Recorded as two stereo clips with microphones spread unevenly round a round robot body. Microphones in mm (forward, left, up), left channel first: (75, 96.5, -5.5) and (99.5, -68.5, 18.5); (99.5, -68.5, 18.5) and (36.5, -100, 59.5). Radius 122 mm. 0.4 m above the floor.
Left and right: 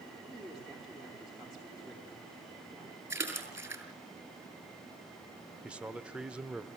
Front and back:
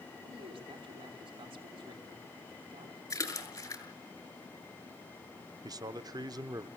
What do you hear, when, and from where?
0.2 s a man speaking: 170° right, 4.5 m
3.1 s a splash: 5° right, 7 m
5.6 s a man speaking: 175° right, 0.9 m